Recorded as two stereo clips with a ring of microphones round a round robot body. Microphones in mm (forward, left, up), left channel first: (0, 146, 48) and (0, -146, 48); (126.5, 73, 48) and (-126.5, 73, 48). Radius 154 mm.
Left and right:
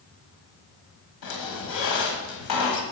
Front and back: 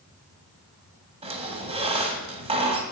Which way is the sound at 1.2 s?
115° left.